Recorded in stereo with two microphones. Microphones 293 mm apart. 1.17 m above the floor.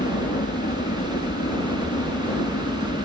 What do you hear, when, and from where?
0.0 s a helicopter: 35° left (ahead or behind)